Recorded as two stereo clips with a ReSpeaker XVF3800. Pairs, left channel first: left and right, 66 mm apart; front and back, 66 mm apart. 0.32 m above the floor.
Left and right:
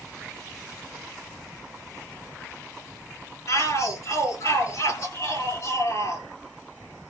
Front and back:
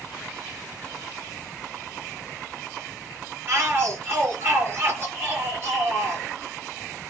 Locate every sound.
3.5 s a shout: 130° left, 5.5 m